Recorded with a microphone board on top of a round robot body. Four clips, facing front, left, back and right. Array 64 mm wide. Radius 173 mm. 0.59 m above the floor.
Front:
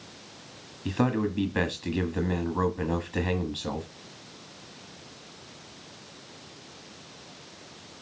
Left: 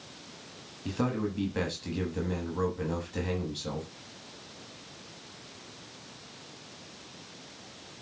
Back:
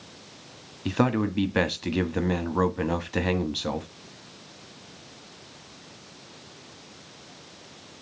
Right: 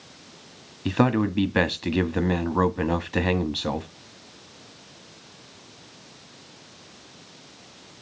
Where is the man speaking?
110° right, 1.4 m.